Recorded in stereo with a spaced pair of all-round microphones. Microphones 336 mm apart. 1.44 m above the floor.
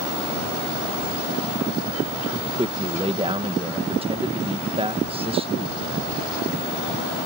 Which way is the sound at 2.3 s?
15° right (ahead or behind).